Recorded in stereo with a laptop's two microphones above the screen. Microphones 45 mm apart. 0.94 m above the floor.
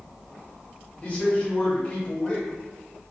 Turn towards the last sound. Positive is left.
turn(degrees=25)  # may be behind; listen again after turning